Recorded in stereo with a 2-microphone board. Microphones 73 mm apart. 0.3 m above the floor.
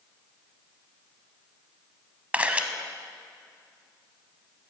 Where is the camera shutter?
20° right (ahead or behind), 1.0 m.